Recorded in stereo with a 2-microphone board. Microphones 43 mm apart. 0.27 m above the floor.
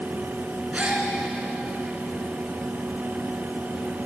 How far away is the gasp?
About 2.5 m.